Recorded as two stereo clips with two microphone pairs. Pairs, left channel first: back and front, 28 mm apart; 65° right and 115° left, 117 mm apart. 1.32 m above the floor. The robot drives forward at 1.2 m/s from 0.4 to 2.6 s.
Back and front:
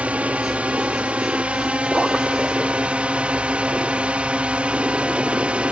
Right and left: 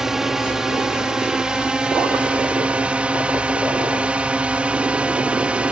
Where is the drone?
30° left; by 5.7 s 40° left.